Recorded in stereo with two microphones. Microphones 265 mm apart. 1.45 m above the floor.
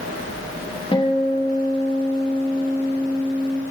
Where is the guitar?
20° left (ahead or behind), 0.9 m.